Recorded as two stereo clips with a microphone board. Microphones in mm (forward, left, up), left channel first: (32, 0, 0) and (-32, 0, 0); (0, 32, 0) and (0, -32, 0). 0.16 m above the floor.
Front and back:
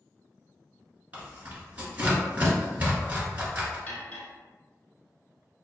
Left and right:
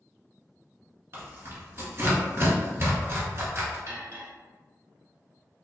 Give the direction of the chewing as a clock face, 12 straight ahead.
I don't hear chewing.